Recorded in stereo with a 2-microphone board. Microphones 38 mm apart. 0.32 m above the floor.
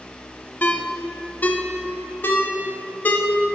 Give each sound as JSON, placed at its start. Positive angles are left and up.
{"t": 0.6, "sound": "a ringtone", "side_deg": 50, "distance_m": 0.6}